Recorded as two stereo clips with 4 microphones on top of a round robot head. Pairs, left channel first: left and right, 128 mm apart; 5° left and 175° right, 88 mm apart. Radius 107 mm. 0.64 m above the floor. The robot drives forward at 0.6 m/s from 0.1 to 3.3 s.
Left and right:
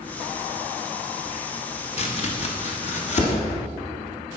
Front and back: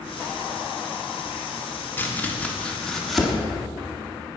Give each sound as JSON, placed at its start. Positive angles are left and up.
{"t": 2.0, "sound": "chopping", "azimuth_deg": 70, "distance_m": 2.0}